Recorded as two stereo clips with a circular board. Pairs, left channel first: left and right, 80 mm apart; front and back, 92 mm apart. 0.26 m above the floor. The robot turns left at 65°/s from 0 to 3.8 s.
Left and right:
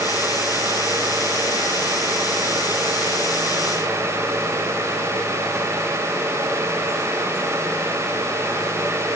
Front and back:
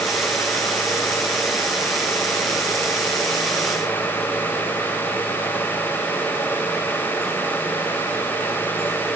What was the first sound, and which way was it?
Only background noise.